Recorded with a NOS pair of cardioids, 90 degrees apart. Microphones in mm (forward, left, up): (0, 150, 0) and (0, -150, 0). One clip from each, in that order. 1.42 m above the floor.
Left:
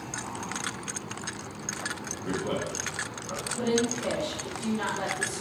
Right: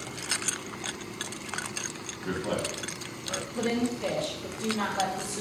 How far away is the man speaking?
About 1.8 m.